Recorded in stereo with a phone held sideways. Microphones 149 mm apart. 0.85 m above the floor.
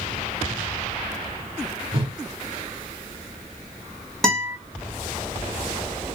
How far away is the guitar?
About 1.3 m.